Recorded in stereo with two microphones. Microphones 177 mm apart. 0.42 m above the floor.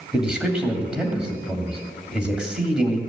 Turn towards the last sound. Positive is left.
turn(degrees=-5)  # may be behind; listen again after turning